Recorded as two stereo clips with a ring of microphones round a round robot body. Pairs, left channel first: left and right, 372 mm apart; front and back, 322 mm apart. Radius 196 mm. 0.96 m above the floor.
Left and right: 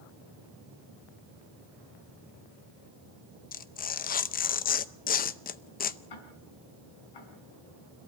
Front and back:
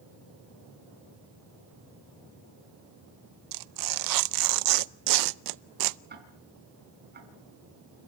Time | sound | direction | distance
3.5 | tearing paper | 160° left | 0.6 m
6.1 | ticking | 120° left | 5 m